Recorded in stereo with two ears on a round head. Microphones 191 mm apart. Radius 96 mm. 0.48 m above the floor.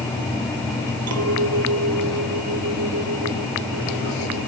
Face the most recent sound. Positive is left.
turn(degrees=-80)